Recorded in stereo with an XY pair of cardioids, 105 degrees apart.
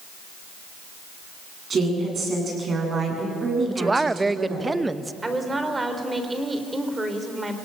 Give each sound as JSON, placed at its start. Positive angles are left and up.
{"t": 1.7, "sound": "a woman speaking", "azimuth_deg": -40, "distance_m": 9.0}
{"t": 3.7, "sound": "a woman speaking", "azimuth_deg": -20, "distance_m": 0.8}
{"t": 5.2, "sound": "a woman speaking", "azimuth_deg": -20, "distance_m": 3.5}